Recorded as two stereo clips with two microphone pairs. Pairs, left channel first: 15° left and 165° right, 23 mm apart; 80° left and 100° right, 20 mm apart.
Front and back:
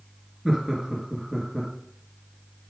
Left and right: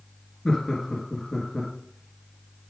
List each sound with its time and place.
0.5 s laughter: 120° left, 1.7 m